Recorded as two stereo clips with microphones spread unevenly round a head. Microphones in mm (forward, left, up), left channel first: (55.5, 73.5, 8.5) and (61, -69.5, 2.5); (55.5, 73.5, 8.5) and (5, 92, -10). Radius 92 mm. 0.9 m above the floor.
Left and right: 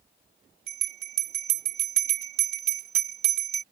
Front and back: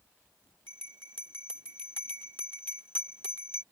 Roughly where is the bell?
Right.